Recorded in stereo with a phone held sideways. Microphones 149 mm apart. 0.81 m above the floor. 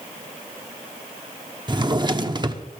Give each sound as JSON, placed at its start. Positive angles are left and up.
{"t": 1.7, "sound": "a drawer", "side_deg": -30, "distance_m": 0.9}